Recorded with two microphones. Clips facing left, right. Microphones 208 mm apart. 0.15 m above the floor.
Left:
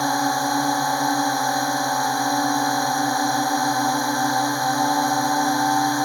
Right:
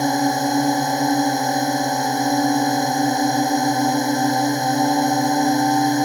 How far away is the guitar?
No guitar in this recording.